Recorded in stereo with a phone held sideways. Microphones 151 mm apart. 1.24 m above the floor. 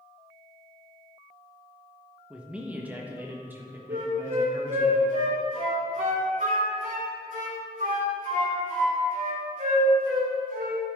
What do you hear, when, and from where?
2.3 s a man speaking: 5° right (ahead or behind), 1.1 m; by 4.9 s 20° right (ahead or behind), 2.5 m
3.9 s a flute: 60° right (ahead or behind), 2.5 m